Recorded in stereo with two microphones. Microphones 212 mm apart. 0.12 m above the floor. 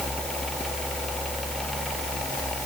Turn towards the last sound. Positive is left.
No sound to turn to.